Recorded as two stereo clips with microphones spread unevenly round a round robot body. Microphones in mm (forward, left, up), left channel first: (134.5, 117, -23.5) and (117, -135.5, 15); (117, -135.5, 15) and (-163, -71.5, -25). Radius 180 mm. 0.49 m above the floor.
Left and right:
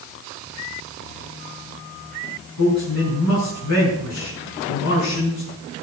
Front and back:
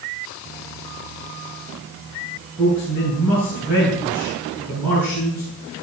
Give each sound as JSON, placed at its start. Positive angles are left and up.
{"t": 2.6, "sound": "a man speaking", "azimuth_deg": 85, "distance_m": 5.5}